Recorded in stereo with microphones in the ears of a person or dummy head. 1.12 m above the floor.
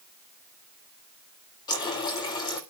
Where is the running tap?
20° left (ahead or behind), 1.6 m.